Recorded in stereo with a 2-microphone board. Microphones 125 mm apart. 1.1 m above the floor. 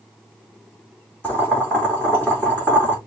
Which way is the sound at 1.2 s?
15° left (ahead or behind).